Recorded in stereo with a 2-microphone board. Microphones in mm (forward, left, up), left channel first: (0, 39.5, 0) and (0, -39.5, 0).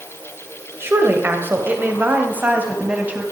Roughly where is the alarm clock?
No alarm clock in this recording.